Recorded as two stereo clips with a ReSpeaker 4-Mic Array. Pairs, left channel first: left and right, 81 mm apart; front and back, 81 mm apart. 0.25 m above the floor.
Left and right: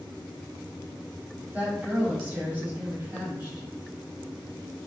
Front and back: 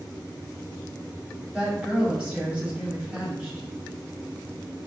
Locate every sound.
1.5 s a woman speaking: 120° right, 1.5 m